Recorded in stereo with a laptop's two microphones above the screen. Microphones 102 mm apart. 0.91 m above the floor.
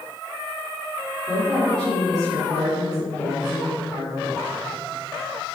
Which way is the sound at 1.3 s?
5° left (ahead or behind).